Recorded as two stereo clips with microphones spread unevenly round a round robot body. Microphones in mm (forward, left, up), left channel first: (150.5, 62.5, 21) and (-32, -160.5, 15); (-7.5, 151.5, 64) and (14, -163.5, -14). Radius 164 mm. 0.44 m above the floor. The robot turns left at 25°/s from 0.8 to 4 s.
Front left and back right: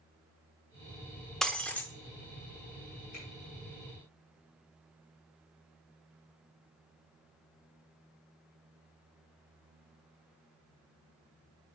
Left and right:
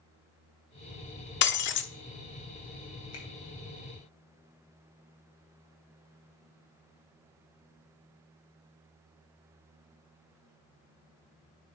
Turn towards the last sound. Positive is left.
turn(degrees=95)